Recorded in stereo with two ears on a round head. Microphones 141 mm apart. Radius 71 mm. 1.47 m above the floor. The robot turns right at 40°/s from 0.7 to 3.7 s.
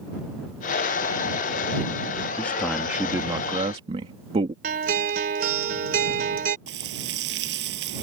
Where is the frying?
80° right.